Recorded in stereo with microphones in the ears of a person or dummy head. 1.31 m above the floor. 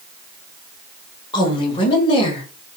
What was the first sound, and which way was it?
A woman speaking, 25° left (ahead or behind).